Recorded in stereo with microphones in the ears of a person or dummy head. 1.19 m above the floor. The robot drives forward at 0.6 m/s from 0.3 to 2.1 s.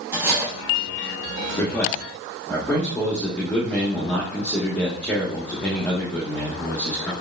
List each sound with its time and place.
0.1 s cutlery clinking: 10° right (ahead or behind), 2.5 m
1.6 s a man speaking: 10° left (ahead or behind), 1.0 m; by 7.1 s 5° left (ahead or behind), 1.3 m